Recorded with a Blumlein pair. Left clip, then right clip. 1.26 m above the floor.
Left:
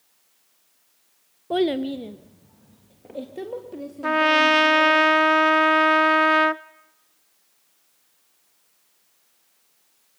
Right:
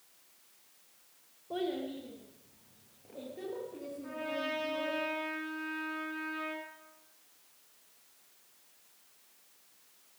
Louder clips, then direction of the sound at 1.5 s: Left 13 dB; 55° left.